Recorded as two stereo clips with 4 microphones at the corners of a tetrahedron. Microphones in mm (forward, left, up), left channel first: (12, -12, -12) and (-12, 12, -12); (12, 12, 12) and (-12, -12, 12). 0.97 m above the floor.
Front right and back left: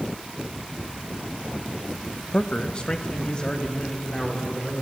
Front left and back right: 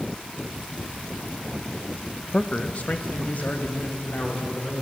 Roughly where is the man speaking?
Ahead.